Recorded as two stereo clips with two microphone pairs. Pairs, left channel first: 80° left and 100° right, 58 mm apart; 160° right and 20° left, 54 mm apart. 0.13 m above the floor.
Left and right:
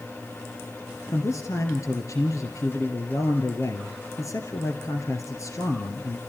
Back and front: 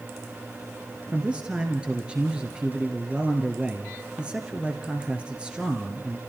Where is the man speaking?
90° left, 2 m.